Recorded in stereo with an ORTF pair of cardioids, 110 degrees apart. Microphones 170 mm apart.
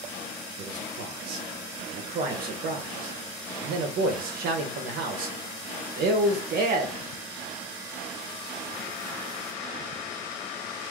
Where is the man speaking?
60° right, 1.1 m.